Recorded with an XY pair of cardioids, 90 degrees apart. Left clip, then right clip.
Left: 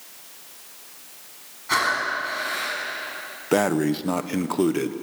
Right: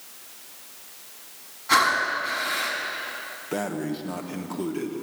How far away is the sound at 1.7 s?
About 8.5 m.